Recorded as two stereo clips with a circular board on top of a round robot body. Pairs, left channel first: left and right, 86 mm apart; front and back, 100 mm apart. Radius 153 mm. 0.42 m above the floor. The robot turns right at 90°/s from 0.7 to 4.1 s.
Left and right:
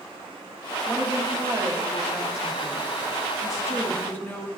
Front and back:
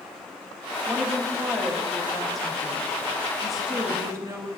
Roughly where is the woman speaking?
Behind right.